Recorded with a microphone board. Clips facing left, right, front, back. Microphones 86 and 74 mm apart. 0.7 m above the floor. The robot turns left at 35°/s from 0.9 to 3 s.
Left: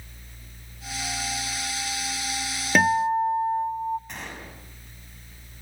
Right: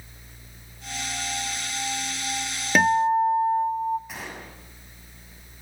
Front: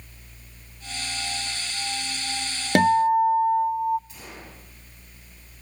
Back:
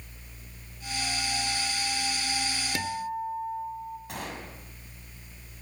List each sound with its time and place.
2.8 s a guitar: straight ahead, 0.6 m; by 4.0 s 10° right, 0.6 m
4.1 s a gunshot: 175° right, 5.5 m